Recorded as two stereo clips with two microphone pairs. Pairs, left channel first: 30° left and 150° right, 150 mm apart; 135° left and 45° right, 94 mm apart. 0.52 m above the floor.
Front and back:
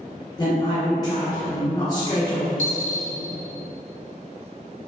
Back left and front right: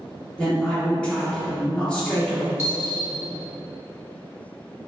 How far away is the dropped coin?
About 1.1 m.